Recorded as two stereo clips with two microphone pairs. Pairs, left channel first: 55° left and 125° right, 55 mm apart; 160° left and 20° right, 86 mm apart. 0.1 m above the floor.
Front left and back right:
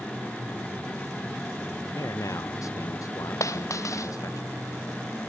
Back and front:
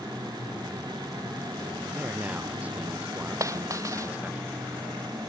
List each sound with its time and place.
1.9 s a man speaking: 55° left
3.4 s a dropped coin: 35° left